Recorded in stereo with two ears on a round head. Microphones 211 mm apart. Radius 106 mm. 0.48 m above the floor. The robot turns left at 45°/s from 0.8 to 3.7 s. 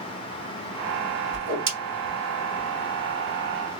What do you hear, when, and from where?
1.3 s a whoosh: 65° right (ahead or behind), 2 m; by 1.7 s 55° right (ahead or behind), 2 m